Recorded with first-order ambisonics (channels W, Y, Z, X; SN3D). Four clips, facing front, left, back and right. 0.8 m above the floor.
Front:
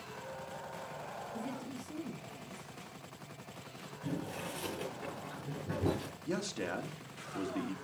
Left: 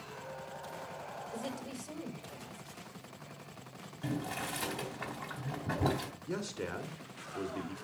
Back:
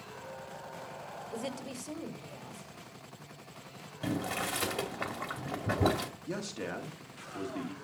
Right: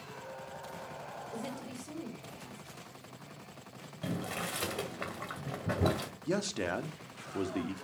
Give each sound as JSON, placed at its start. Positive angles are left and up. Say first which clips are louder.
{"t": 1.3, "sound": "a woman speaking", "louder": "even, back 5 dB", "azimuth_deg": 180, "distance_m": 2.0}
{"t": 4.0, "sound": "boiling", "louder": "even, back 6 dB", "azimuth_deg": -155, "distance_m": 2.0}
{"t": 6.3, "sound": "a man speaking", "louder": "right 7 dB, front 4 dB", "azimuth_deg": -85, "distance_m": 1.4}